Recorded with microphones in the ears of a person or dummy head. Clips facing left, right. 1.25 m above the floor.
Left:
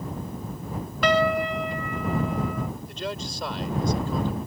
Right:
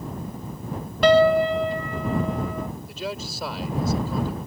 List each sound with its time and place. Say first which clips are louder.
1.0 s a piano: right 6 dB; 30° right (ahead or behind)
2.9 s a man speaking: right 1 dB; centre (ahead or behind)